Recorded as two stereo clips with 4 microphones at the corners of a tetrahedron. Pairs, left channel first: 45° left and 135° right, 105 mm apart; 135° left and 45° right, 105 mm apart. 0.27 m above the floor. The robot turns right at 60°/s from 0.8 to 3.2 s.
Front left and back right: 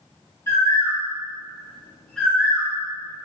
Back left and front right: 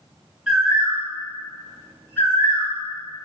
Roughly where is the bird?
Ahead left.